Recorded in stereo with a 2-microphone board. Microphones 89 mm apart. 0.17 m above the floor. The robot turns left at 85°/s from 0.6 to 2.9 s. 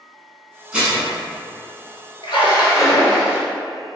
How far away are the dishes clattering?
About 1.0 m.